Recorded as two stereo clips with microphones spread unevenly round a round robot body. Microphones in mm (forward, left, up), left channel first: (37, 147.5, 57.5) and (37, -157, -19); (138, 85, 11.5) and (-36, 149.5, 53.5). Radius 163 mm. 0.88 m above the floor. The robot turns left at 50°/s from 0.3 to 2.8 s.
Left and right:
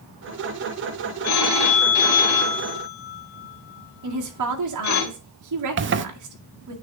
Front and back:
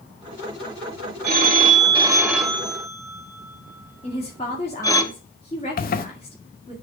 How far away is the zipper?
About 0.6 m.